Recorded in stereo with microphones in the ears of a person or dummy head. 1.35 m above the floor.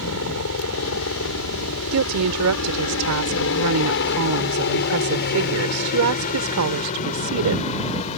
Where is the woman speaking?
85° right.